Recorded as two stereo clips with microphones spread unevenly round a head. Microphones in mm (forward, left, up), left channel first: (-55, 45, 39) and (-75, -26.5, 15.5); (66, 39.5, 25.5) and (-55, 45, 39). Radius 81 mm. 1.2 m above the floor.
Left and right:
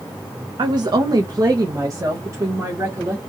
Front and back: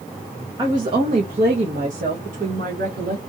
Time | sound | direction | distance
0.6 | a woman speaking | 115° right | 0.7 m